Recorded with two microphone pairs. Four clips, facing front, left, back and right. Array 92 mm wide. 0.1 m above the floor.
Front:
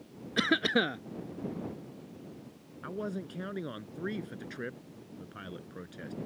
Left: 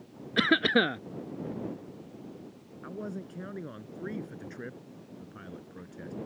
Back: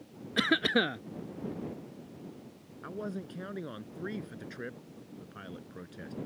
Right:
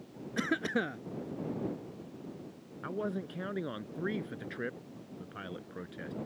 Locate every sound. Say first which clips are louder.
0.4 s a cough: left 7 dB, even; 90° left
2.8 s a man speaking: right 3 dB, front 2 dB; 75° right